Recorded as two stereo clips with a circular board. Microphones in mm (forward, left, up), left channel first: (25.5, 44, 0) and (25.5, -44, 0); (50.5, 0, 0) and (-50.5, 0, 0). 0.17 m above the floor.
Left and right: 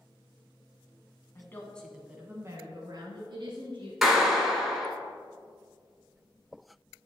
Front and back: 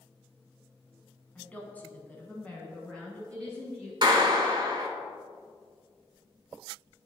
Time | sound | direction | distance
1.4 | a woman speaking | 65° left | 1.2 m
4.0 | a clap | straight behind | 1.2 m